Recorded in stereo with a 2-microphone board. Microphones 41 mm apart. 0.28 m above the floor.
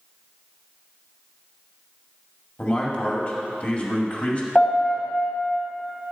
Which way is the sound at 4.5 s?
30° left (ahead or behind).